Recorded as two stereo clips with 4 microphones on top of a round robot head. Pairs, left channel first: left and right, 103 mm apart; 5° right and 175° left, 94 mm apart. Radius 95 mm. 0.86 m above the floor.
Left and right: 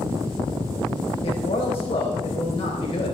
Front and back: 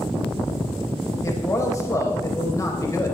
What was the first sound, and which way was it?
A man speaking, 50° left.